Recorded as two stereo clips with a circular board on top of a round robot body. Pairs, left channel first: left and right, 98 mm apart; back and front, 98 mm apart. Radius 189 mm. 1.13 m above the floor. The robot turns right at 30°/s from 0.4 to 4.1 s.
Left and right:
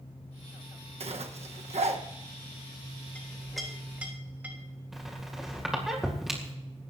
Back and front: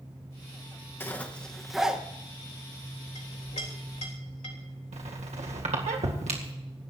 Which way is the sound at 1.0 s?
110° right.